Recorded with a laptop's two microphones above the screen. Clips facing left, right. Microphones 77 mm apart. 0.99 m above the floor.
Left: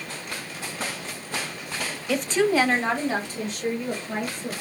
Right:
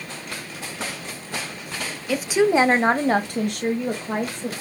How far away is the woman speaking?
About 1.1 m.